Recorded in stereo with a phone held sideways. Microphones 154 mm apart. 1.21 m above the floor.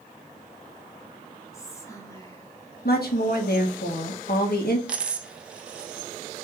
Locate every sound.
1.5 s whispering: 20° left (ahead or behind), 1.0 m
2.9 s a woman speaking: 85° left, 1.1 m
4.9 s a dropped coin: 5° right (ahead or behind), 0.6 m